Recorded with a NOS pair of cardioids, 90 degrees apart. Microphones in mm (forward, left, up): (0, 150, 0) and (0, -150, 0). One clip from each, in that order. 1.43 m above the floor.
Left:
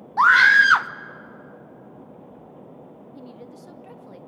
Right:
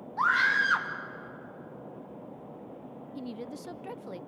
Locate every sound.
0.2 s a scream: 55° left, 0.8 m
3.1 s a woman speaking: 30° right, 0.6 m